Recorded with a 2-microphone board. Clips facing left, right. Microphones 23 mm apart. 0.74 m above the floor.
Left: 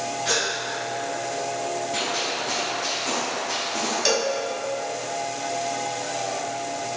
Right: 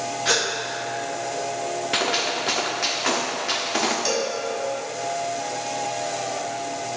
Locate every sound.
0.2 s a gasp: 25° right (ahead or behind), 1.0 m
1.9 s a gunshot: 75° right (ahead or behind), 1.0 m
4.0 s a cowbell: 30° left (ahead or behind), 1.1 m